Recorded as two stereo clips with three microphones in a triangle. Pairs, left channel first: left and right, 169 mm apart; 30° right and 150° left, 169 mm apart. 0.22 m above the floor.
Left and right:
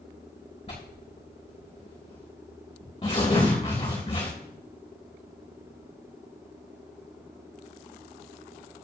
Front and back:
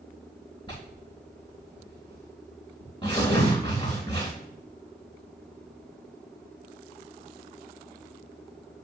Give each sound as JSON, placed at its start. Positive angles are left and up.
{"t": 0.7, "sound": "tearing paper", "azimuth_deg": 30, "distance_m": 3.0}